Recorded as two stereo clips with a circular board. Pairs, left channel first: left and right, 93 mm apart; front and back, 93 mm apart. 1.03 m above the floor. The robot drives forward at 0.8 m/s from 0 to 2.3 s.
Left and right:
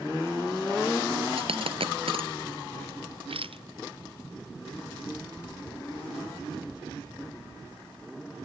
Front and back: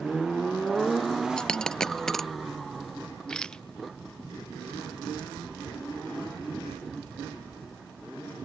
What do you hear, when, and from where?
1.4 s a dropped coin: 80° right; by 2.3 s 85° right
3.3 s a rattle: 80° right